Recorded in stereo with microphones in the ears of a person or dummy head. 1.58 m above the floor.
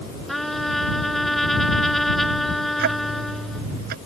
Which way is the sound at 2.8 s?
60° right (ahead or behind).